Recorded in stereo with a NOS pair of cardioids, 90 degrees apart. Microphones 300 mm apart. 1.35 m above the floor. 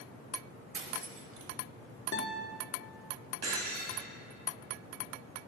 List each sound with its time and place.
0.7 s cutlery clinking: 50° right, 1.4 m
2.1 s a guitar: 35° left, 1.9 m
3.4 s breaking glass: 60° right, 3.5 m